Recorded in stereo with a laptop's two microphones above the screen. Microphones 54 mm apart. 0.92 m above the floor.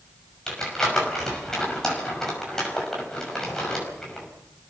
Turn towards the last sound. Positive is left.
turn(degrees=10)  # may be behind; listen again after turning